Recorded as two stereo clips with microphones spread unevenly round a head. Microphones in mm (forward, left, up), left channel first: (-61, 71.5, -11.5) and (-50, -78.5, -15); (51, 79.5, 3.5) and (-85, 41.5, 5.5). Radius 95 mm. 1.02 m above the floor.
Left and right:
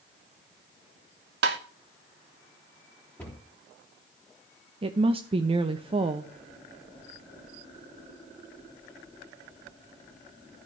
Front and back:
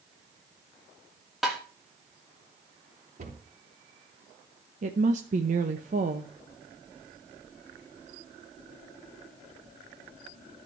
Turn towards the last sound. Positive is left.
turn(degrees=-135)